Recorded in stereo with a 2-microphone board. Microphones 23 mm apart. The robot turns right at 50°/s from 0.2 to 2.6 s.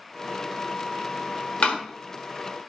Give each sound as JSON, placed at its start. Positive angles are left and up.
{"t": 1.6, "sound": "a door slam", "side_deg": 70, "distance_m": 1.3}